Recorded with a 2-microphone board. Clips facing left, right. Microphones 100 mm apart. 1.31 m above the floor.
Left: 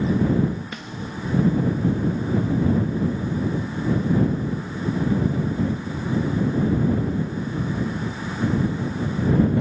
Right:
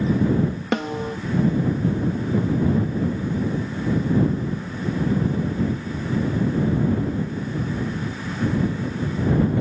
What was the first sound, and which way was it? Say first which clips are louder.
A snare drum: right 9 dB; 80° right.